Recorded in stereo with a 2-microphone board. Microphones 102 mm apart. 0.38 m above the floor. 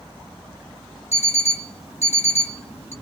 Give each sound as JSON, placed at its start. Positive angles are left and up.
{"t": 1.1, "sound": "an alarm clock", "side_deg": 80, "distance_m": 1.4}